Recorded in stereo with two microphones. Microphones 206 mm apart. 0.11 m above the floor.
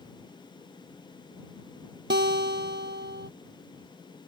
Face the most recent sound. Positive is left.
turn(degrees=-60)  # may be behind; listen again after turning